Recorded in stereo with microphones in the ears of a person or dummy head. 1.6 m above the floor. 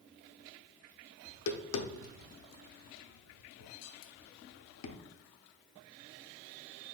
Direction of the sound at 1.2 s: 80° left.